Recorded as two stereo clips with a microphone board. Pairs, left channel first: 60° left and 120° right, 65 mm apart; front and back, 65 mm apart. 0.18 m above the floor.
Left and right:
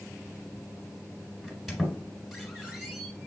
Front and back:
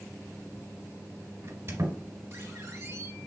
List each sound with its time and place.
1.4 s a squeak: 150° left, 1.5 m